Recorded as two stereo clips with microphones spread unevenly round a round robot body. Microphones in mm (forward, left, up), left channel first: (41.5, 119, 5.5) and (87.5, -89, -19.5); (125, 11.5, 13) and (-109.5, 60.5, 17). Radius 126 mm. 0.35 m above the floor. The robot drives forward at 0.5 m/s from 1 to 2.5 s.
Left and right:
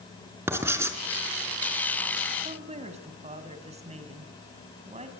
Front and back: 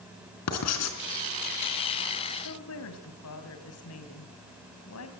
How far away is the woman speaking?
About 3 m.